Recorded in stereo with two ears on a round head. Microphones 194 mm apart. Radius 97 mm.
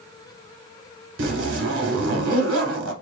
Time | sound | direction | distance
1.2 | a zipper | 60° right (ahead or behind) | 0.8 m